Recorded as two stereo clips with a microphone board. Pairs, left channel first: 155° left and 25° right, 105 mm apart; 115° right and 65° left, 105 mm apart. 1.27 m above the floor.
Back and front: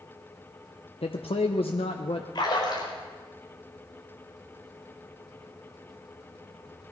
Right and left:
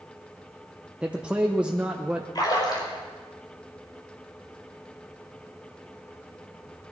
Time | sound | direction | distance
1.0 | a man speaking | 145° left | 0.8 m
2.4 | a splash | 160° right | 4 m